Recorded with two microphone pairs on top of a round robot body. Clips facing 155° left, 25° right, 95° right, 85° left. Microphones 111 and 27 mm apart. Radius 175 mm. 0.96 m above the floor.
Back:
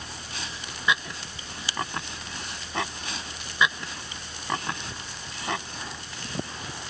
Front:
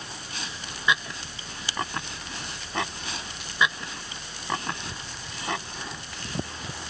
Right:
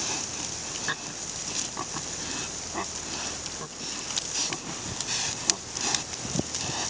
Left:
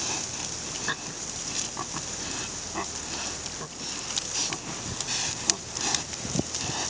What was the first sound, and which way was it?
Only background noise.